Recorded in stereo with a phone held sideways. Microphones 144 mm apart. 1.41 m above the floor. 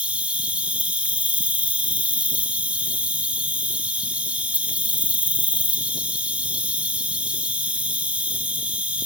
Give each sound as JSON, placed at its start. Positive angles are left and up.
{"t": 0.0, "sound": "an insect", "side_deg": -10, "distance_m": 0.9}